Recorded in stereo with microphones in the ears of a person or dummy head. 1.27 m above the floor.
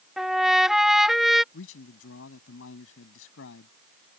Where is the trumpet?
Centre (ahead or behind).